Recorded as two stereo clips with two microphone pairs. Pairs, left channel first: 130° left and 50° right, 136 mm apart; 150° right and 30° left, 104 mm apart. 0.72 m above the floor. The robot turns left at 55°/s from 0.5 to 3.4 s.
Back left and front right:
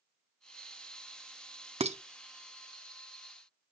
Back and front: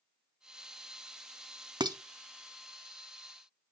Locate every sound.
1.8 s dishes clattering: 10° right, 0.5 m; by 2.0 s 20° right, 0.5 m